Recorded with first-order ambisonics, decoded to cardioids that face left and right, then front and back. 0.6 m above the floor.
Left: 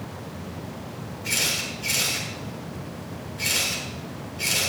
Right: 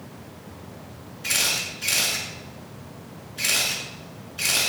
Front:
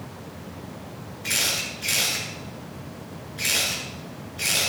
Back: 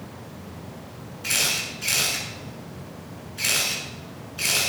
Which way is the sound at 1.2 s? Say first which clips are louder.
Right 1 dB, back 1 dB; 140° right.